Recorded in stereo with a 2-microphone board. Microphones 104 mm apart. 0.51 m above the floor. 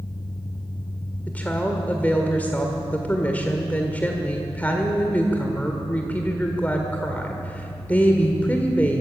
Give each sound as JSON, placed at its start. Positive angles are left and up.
{"t": 1.3, "sound": "a woman speaking", "side_deg": 15, "distance_m": 1.9}